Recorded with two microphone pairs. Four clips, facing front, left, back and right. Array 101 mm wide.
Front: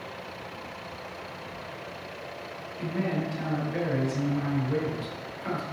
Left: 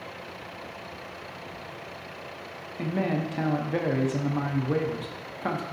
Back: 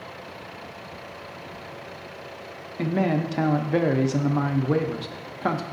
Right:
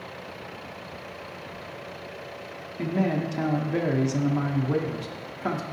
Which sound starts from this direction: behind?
A man speaking, at 2.8 s.